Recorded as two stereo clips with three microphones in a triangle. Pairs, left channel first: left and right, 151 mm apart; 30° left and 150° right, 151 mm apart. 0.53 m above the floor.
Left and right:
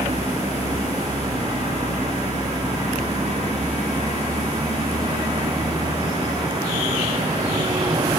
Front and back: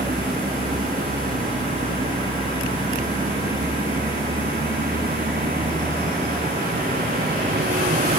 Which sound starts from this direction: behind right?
A vehicle, at 0.0 s.